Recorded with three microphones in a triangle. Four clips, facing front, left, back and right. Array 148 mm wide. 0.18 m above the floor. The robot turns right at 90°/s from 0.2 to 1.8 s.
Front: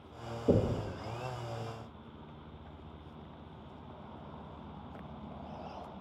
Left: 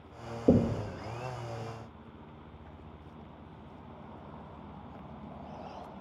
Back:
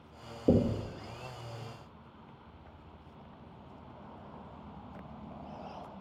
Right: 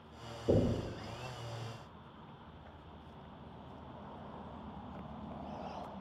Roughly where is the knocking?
Behind left.